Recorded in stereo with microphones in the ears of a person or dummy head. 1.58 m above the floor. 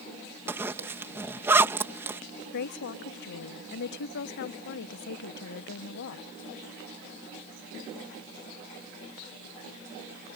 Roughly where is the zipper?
Centre.